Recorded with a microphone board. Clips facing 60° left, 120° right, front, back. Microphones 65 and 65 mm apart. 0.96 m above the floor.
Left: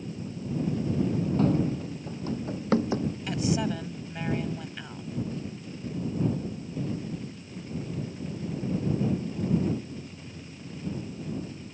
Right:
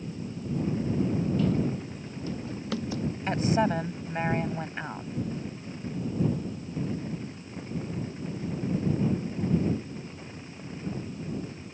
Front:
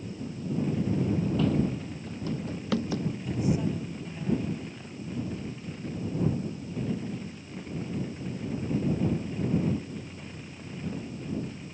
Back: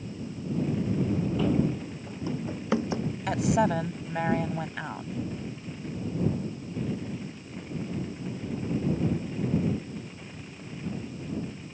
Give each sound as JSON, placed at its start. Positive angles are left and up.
{"t": 1.4, "sound": "running footsteps", "azimuth_deg": 100}
{"t": 3.3, "sound": "a woman speaking", "azimuth_deg": -175}